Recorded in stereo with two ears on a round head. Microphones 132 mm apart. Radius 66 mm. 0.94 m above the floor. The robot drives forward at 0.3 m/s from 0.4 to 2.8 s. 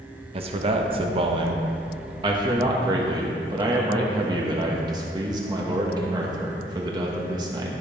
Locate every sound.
0.3 s a man speaking: 40° right (ahead or behind), 0.9 m; by 7.8 s 30° right (ahead or behind), 1.2 m